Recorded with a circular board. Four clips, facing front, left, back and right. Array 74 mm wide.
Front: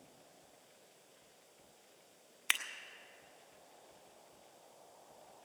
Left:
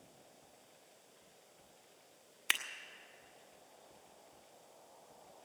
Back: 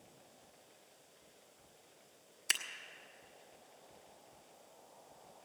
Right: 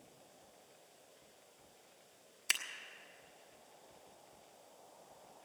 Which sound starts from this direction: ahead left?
Scissors, at 2.5 s.